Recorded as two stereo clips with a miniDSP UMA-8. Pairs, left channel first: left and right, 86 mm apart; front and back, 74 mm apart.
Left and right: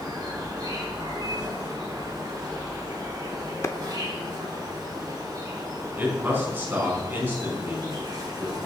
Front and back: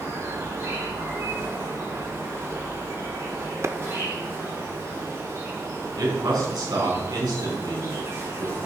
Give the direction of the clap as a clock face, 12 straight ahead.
7 o'clock.